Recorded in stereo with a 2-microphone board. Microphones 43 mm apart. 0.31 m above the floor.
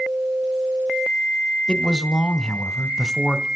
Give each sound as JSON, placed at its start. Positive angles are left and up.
{"t": 1.7, "sound": "a man speaking", "side_deg": 20, "distance_m": 1.4}